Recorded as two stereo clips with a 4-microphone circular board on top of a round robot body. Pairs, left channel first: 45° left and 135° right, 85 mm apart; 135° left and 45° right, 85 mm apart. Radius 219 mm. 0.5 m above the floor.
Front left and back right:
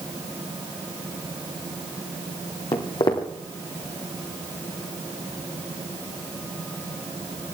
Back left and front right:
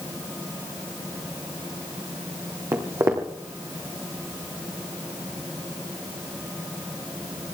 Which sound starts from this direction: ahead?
Footsteps, at 2.7 s.